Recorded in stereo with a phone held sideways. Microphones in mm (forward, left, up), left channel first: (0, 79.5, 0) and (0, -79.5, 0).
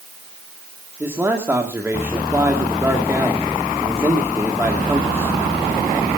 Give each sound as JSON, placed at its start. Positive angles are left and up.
{"t": 1.0, "sound": "a man speaking", "side_deg": -15, "distance_m": 2.0}